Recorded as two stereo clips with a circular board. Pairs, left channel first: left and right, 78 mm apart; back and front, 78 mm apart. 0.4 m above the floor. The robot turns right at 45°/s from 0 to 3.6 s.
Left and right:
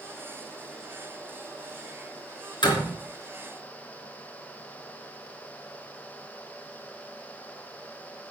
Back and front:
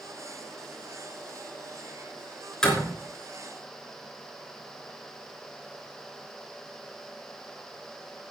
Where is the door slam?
100° left, 3.5 m; by 3.0 s 115° left, 3.5 m.